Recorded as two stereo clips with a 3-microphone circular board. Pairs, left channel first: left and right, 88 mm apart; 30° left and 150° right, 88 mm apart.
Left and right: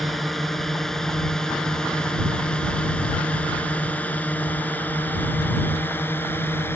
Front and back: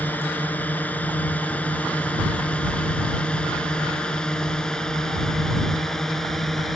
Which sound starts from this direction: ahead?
A drone, at 0.0 s.